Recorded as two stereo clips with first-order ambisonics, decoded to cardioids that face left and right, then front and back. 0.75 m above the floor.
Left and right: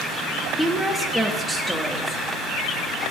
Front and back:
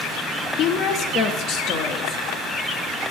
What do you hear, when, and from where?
0.6 s a woman speaking: straight ahead, 1.1 m